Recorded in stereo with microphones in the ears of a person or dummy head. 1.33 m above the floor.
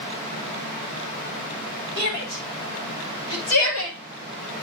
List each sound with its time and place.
2.0 s a shout: 75° left (ahead or behind), 5.5 m; by 4.0 s 85° left, 4 m